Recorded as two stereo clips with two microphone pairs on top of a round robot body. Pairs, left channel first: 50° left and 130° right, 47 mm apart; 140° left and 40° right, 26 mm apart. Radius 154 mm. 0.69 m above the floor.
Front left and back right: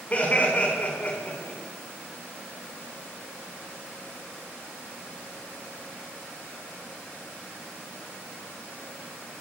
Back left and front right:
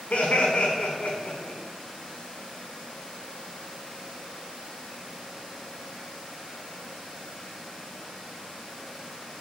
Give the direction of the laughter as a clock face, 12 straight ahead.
8 o'clock.